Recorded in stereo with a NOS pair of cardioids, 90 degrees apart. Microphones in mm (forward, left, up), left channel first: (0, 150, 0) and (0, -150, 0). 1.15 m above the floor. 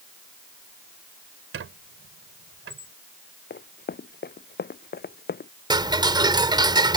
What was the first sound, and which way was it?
A squeak, 45° right.